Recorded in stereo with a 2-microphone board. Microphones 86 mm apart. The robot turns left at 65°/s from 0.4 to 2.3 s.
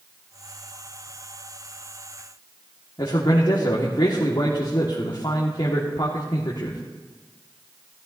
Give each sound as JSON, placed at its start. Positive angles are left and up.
{"t": 3.0, "sound": "a man speaking", "side_deg": 60, "distance_m": 1.5}